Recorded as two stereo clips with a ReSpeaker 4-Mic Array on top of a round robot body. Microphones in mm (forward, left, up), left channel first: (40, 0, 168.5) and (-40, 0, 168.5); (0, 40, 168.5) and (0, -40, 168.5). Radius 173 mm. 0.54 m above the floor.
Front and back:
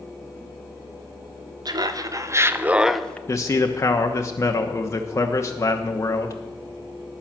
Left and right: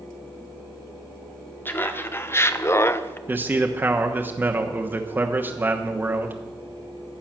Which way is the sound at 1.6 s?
155° left.